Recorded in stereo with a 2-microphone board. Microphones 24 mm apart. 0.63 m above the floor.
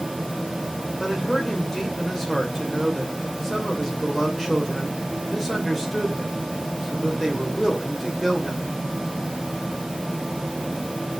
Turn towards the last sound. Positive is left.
turn(degrees=10)  # may be behind; listen again after turning